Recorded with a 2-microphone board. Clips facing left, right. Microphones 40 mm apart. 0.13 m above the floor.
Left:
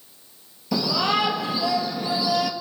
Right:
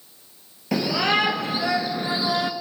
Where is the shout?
50° right (ahead or behind), 3 m; by 2.5 s 35° right (ahead or behind), 1.9 m.